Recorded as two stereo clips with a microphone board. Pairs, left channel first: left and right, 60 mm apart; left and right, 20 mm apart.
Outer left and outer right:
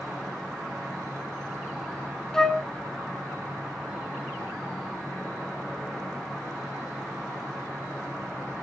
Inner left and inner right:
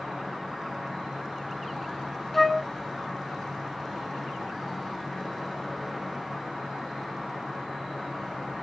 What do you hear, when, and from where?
0.0 s an insect: 10° left (ahead or behind), 9.5 m
2.3 s a flute: 10° left (ahead or behind), 0.9 m